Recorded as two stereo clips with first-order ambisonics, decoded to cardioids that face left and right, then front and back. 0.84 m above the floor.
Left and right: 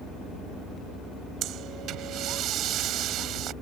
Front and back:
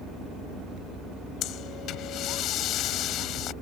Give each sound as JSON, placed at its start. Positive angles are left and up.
{"t": 1.4, "sound": "breathing", "azimuth_deg": -45}